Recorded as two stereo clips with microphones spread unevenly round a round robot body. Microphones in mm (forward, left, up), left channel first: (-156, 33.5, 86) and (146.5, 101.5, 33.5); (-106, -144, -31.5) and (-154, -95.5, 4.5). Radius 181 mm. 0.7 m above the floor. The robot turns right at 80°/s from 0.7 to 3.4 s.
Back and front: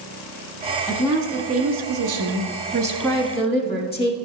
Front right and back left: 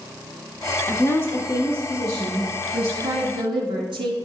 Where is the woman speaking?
85° right, 1.3 m; by 4.2 s 115° left, 1.3 m.